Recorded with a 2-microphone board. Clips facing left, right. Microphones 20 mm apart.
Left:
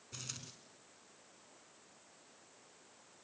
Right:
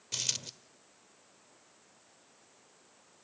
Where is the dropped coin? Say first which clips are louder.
Right 13 dB; 80° right, 1.1 m.